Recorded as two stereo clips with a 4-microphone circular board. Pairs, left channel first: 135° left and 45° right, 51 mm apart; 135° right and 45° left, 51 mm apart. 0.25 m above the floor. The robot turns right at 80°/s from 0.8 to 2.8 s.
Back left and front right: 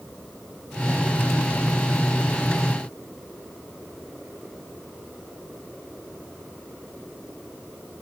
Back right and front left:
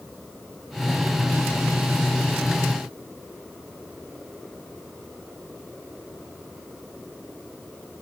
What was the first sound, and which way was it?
Only background noise.